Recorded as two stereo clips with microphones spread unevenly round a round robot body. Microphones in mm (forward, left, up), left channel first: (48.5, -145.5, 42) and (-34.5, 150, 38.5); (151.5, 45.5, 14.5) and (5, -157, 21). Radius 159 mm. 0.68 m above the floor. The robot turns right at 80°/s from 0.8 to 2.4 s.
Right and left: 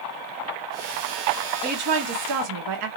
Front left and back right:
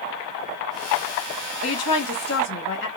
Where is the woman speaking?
40° left, 1.2 m; by 2.9 s 100° left, 1.2 m.